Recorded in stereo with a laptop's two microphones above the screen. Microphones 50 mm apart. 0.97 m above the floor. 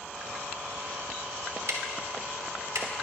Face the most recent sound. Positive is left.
turn(degrees=-70)  # may be behind; listen again after turning